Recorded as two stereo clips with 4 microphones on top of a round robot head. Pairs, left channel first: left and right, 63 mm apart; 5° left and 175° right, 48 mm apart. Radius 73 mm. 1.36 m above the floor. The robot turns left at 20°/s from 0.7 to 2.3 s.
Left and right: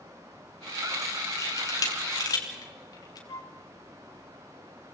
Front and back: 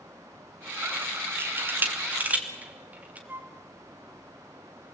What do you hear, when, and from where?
1.4 s a camera shutter: 145° left, 3 m; by 3.2 s 125° left, 3 m
3.3 s a flute: 135° left, 1.5 m